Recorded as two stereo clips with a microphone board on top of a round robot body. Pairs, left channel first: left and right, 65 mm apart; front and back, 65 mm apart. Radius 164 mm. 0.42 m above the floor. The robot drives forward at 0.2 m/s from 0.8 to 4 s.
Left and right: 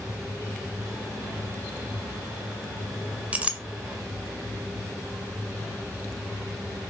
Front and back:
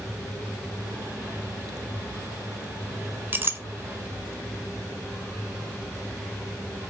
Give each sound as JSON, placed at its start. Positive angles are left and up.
{"t": 3.3, "sound": "a clink", "azimuth_deg": -145, "distance_m": 0.5}